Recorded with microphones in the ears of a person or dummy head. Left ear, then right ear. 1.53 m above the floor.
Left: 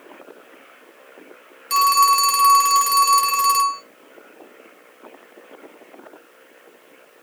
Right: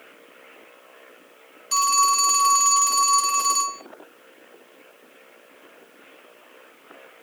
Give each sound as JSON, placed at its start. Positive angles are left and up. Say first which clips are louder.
{"t": 1.7, "sound": "a phone ringing", "louder": "left 5 dB", "side_deg": 50, "distance_m": 0.9}